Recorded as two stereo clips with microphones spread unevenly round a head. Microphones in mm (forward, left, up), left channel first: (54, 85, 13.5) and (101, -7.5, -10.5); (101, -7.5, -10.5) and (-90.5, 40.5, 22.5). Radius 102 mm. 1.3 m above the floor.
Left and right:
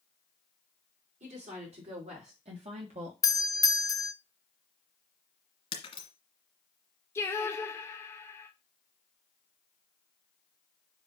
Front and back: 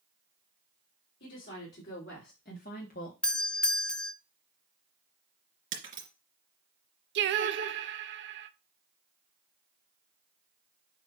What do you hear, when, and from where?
1.2 s a woman speaking: 60° right, 3.5 m
3.2 s a doorbell: 60° left, 0.8 m
5.7 s breaking glass: 125° left, 2.5 m
7.2 s singing: 160° right, 0.6 m